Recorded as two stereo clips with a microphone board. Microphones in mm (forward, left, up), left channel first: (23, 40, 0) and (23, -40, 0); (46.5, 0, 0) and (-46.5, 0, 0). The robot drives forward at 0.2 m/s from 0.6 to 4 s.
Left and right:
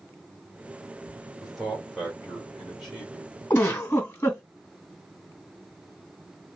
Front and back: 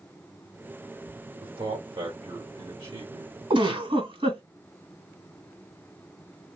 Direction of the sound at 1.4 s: Straight behind.